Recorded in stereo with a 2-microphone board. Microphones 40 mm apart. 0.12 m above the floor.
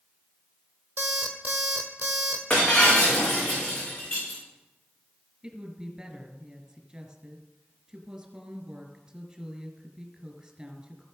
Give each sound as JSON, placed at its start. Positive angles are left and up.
{"t": 1.0, "sound": "an alarm clock", "side_deg": -40, "distance_m": 1.5}
{"t": 2.5, "sound": "breaking glass", "side_deg": 25, "distance_m": 5.0}
{"t": 5.4, "sound": "a woman speaking", "side_deg": -20, "distance_m": 1.9}